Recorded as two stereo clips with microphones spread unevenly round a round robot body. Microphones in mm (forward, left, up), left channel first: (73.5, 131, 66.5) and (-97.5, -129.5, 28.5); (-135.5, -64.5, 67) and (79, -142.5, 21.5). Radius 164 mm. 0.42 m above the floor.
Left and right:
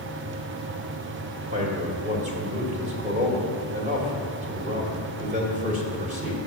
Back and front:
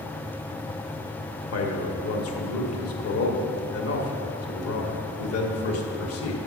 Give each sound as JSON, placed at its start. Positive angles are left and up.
{"t": 1.5, "sound": "a man speaking", "azimuth_deg": 175, "distance_m": 1.5}